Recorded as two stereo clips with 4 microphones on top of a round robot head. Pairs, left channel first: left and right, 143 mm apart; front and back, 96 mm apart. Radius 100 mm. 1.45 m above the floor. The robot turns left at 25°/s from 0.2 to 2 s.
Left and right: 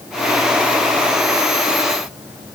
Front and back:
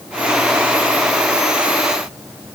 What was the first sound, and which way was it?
Only background noise.